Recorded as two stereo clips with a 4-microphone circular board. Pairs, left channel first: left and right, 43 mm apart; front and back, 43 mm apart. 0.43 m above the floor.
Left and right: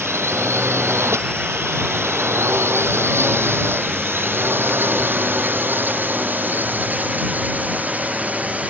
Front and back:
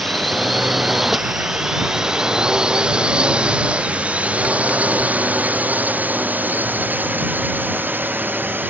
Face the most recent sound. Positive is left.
turn(degrees=-145)